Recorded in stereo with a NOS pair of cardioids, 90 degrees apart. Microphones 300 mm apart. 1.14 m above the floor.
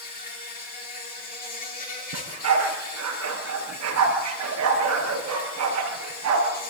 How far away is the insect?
About 9 m.